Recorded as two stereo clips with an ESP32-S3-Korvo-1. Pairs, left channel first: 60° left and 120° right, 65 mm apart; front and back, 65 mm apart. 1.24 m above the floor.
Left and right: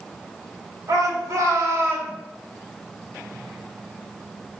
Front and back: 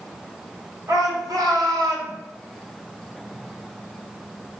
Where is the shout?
155° right, 3.5 m; by 2.1 s straight behind, 3 m.